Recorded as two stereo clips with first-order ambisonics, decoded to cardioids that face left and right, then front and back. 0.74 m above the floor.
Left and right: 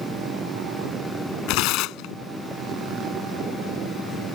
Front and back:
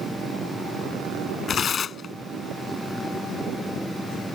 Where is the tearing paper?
65° left.